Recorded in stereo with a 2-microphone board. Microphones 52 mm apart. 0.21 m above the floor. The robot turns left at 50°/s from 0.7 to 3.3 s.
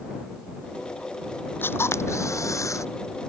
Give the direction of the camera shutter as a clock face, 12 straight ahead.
7 o'clock.